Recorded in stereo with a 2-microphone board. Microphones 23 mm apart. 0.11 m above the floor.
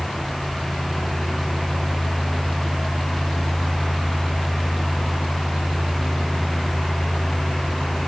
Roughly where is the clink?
No clink in this recording.